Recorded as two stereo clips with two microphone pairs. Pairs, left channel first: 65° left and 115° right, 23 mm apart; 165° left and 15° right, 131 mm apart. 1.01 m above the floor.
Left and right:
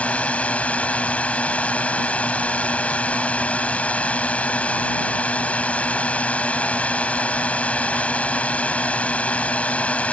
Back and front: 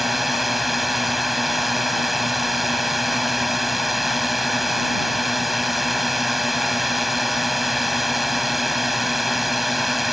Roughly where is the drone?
Left.